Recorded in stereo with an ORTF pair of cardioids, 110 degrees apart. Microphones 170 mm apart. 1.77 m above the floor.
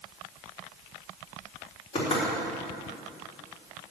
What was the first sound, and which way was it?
Knocking, 40° left.